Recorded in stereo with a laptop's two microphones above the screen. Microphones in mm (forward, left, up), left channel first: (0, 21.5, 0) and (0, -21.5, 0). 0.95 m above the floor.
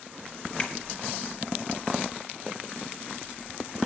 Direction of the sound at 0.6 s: 35° left (ahead or behind).